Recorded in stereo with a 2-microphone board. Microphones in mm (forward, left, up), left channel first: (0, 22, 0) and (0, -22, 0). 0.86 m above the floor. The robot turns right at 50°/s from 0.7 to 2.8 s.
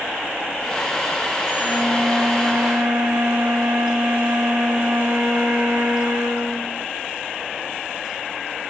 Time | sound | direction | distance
1.6 | a flute | 145° right | 2.5 m